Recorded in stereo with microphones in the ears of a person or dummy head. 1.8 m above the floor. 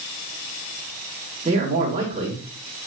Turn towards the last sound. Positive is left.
turn(degrees=-25)  # may be behind; listen again after turning